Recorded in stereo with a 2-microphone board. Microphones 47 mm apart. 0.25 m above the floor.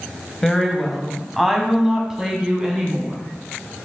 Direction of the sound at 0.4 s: 10° left (ahead or behind).